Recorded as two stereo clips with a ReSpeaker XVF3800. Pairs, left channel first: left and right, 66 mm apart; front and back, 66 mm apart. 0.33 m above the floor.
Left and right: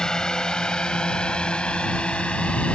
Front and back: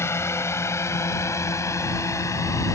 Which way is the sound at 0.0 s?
15° left.